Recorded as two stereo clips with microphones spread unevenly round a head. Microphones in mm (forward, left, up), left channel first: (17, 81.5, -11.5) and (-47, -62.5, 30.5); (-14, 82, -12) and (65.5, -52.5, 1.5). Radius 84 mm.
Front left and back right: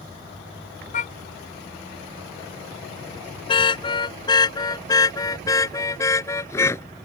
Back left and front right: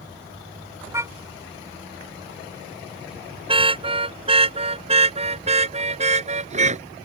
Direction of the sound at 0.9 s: 15° left.